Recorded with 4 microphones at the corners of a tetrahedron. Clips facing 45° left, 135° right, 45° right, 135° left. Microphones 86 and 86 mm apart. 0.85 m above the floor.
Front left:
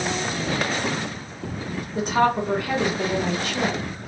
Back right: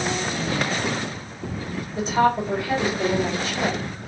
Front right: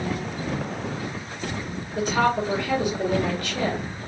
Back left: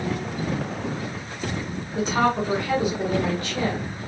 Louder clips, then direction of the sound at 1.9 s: Even, even; 75° left.